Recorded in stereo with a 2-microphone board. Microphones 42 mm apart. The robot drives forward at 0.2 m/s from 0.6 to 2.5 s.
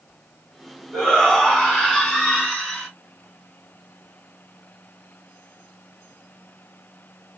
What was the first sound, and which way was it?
A shout, 10° left (ahead or behind).